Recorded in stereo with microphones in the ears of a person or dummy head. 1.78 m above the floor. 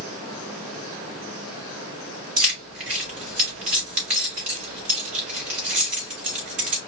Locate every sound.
2.4 s keys jangling: 45° right (ahead or behind), 3.5 m